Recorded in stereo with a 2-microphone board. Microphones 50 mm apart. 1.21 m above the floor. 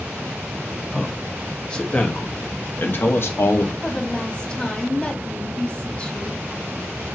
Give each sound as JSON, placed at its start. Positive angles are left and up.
{"t": 0.9, "sound": "a man speaking", "side_deg": 10, "distance_m": 1.8}
{"t": 3.8, "sound": "a woman speaking", "side_deg": 20, "distance_m": 2.0}